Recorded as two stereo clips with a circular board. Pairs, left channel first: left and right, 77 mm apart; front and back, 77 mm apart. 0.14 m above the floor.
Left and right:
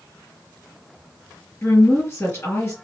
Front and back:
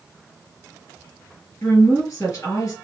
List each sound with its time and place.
1.6 s a woman speaking: 35° left, 2.5 m